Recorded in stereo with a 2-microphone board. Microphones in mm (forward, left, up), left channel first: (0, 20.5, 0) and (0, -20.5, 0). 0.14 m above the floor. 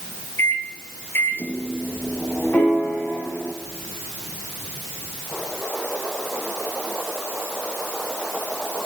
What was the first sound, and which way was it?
A microwave, 60° left (ahead or behind).